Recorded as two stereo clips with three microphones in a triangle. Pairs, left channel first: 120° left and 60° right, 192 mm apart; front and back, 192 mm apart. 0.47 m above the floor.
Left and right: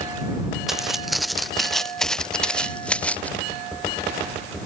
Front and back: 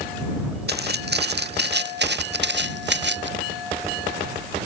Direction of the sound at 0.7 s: 150° right.